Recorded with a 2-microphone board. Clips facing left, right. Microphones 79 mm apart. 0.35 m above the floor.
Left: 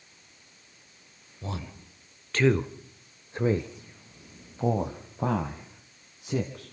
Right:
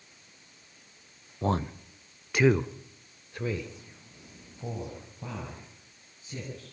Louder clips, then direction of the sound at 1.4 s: Right 9 dB; 45° right (ahead or behind).